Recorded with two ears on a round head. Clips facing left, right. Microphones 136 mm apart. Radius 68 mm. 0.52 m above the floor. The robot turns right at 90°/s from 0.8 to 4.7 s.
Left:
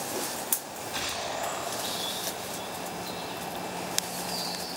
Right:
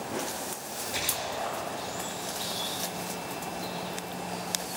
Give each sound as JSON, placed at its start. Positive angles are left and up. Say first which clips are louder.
{"t": 0.6, "sound": "a splash", "louder": "even", "azimuth_deg": -30, "distance_m": 2.0}